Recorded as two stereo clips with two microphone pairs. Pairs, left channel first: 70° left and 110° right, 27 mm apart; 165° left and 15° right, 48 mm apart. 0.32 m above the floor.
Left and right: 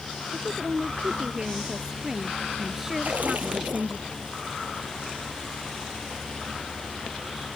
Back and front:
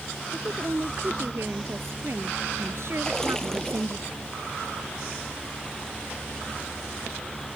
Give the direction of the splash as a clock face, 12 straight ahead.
4 o'clock.